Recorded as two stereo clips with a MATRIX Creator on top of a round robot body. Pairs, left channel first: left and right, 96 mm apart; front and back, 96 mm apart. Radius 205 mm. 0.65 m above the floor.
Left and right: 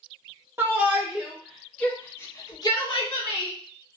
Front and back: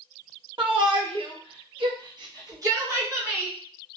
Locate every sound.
0.6 s a shout: 155° right, 1.3 m; by 3.6 s 110° left, 1.4 m